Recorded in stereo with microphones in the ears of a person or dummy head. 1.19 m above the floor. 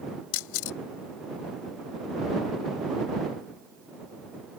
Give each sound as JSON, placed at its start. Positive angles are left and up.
{"t": 0.3, "sound": "a camera shutter", "side_deg": 75}